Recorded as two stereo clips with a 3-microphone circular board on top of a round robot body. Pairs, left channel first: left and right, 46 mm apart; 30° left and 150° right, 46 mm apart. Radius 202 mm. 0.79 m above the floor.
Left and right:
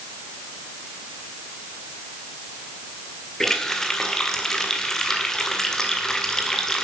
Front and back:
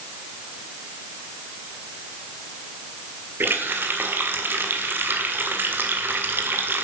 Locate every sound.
3.4 s a running tap: 170° left, 1.9 m